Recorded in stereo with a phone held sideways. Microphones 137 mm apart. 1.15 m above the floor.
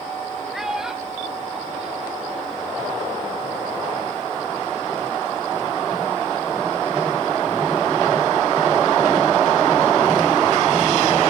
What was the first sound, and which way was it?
A child speaking, 5° right (ahead or behind).